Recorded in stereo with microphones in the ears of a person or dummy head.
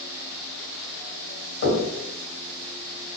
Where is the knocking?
65° left (ahead or behind), 1.6 m.